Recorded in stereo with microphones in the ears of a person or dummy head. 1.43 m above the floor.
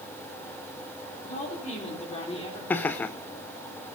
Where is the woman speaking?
60° left (ahead or behind), 3 m; by 2.6 s 35° left (ahead or behind), 4 m.